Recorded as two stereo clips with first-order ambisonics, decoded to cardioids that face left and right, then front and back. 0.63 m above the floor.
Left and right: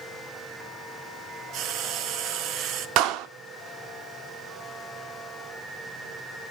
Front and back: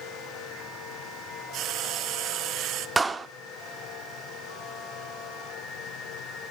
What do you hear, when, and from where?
1.5 s frying: 135° right, 1.3 m
3.0 s a clap: 105° right, 1.0 m